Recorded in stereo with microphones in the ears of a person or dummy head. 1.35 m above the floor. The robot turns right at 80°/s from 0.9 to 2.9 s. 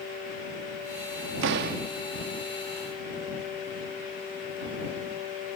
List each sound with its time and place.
1.4 s a door slam: 75° right; by 1.8 s 45° right